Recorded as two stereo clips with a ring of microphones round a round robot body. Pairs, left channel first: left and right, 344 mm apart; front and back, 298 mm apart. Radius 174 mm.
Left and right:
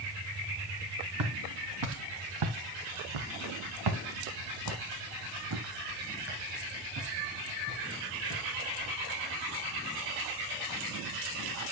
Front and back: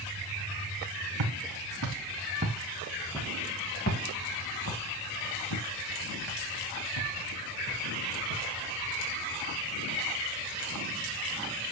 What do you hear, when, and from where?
1.2 s footsteps: 140° right, 2.5 m; by 8.9 s 20° right, 6.5 m